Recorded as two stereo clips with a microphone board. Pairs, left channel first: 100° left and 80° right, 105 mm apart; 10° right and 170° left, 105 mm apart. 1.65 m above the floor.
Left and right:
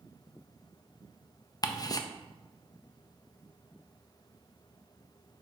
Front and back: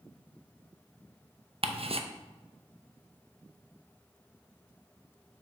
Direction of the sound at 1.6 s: 150° left.